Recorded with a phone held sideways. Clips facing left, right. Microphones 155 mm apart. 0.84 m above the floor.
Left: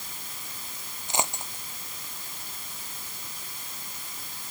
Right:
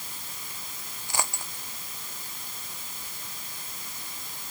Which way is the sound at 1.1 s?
20° left (ahead or behind).